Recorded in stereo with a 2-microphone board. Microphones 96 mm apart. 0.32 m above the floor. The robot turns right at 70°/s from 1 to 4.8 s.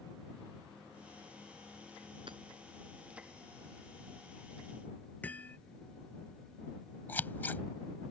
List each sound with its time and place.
2.3 s hammering: 60° right (ahead or behind); by 2.4 s 50° right (ahead or behind)
5.2 s hammering: 15° left (ahead or behind)
7.1 s scissors: 20° left (ahead or behind)